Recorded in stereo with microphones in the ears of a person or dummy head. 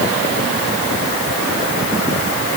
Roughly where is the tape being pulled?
No tape being pulled in this recording.